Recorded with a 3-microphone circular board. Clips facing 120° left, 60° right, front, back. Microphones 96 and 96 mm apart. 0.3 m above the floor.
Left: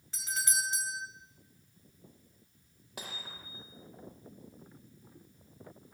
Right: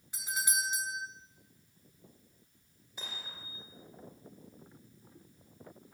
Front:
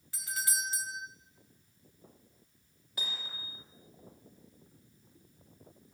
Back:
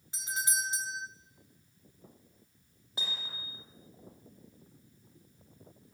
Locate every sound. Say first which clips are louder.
0.1 s a doorbell: even, back 2 dB; 125° right, 2.5 m
3.0 s hammering: left 2 dB, back 1 dB; 115° left, 7 m